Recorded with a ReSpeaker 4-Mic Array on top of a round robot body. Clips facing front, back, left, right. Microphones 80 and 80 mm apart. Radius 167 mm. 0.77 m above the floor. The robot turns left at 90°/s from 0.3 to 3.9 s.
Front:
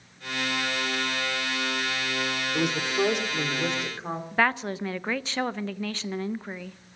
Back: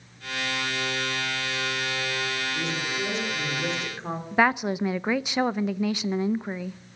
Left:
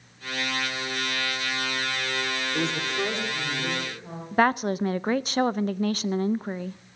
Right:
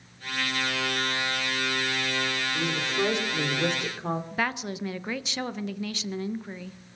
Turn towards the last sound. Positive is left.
turn(degrees=110)